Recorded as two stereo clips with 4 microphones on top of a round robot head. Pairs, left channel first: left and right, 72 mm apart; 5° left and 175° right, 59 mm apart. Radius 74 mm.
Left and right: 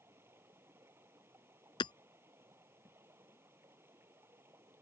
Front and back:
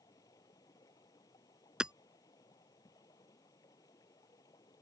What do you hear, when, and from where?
0.0 s running water: 35° right
1.8 s hammering: 105° left